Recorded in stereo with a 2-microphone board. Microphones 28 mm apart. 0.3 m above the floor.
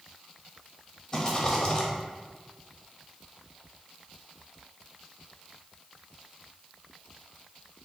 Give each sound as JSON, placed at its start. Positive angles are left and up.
{"t": 1.1, "sound": "a rattle", "side_deg": 25, "distance_m": 0.9}